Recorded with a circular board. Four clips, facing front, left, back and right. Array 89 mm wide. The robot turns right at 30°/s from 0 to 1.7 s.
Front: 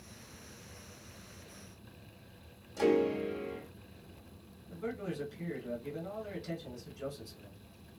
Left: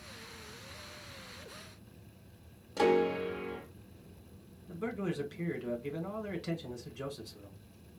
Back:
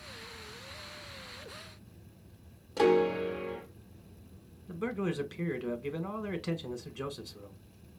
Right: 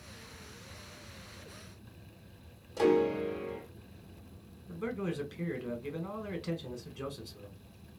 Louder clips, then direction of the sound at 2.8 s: Right 1 dB, back 3 dB; 150° left.